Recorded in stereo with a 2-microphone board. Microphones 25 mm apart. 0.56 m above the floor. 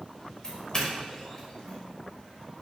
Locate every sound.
0.4 s a doorbell: 30° left (ahead or behind), 3.5 m